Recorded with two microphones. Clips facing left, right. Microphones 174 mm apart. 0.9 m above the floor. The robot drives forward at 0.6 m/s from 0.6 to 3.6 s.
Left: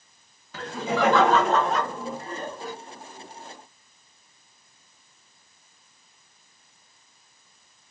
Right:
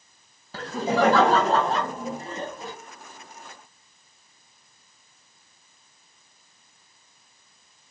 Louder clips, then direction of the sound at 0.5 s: Right 3 dB; 40° right (ahead or behind).